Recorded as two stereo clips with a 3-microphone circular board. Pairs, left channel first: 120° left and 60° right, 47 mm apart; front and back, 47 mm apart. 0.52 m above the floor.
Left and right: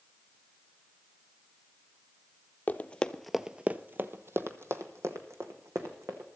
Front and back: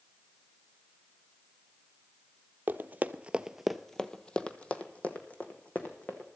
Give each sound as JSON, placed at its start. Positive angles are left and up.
{"t": 2.7, "sound": "running footsteps", "azimuth_deg": 160, "distance_m": 0.7}